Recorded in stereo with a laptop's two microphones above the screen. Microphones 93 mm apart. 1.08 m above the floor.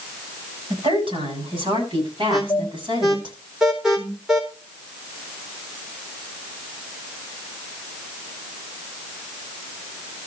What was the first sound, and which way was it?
A woman speaking, 70° right (ahead or behind).